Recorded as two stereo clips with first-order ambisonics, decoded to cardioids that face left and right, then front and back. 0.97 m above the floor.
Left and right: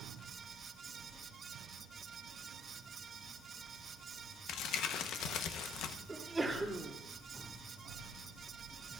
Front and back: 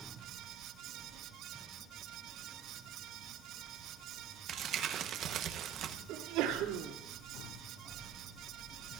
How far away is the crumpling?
About 0.9 m.